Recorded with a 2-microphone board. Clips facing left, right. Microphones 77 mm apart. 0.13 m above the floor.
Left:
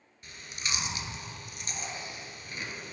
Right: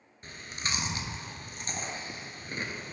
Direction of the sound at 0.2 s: 40° right (ahead or behind).